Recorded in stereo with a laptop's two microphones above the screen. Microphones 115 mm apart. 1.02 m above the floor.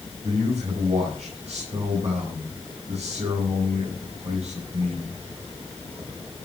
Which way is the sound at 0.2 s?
75° right (ahead or behind).